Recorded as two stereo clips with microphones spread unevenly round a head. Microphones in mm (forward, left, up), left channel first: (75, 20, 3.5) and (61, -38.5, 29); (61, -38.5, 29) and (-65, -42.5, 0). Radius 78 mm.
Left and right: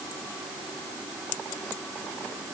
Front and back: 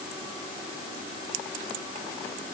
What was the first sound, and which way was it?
Only background noise.